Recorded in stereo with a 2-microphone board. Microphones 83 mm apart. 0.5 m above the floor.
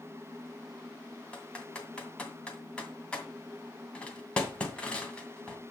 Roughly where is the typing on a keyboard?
Centre.